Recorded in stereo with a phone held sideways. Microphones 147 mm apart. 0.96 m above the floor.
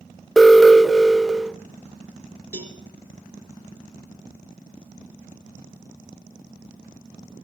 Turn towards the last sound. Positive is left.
turn(degrees=-20)  # may be behind; listen again after turning